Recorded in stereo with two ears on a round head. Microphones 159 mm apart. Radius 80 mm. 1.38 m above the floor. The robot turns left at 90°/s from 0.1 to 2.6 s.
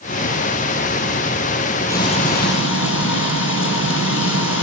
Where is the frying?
165° left, 8 m; by 4.6 s 105° left, 8 m.